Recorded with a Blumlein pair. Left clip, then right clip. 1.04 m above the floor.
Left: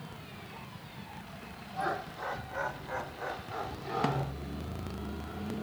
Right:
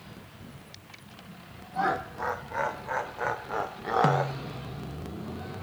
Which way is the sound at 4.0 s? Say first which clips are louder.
Right 8 dB; 10° right.